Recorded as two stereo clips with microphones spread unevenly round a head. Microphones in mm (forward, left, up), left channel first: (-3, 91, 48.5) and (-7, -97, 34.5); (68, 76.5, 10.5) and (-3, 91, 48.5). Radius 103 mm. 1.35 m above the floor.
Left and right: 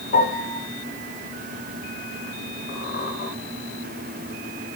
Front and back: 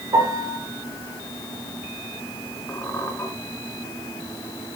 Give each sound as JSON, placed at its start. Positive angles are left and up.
{"t": 0.1, "sound": "a piano", "azimuth_deg": 130, "distance_m": 7.0}
{"t": 2.7, "sound": "a squeak", "azimuth_deg": 50, "distance_m": 4.0}